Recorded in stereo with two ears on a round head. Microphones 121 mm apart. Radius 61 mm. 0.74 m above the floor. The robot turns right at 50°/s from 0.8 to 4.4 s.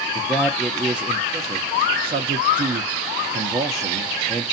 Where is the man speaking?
Centre (ahead or behind), 0.6 m.